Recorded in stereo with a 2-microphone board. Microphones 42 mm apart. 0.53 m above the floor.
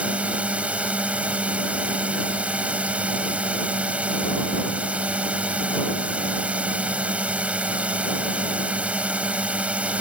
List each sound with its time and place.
0.0 s a drone: 30° right (ahead or behind)